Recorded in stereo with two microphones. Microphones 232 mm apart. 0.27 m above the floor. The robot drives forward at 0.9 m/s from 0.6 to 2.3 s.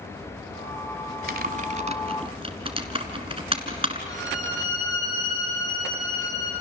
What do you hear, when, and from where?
1.3 s typing on a keyboard: 45° right (ahead or behind), 1.0 m; by 4.0 s 25° right (ahead or behind), 1.6 m
4.1 s a violin: 15° left (ahead or behind), 8.5 m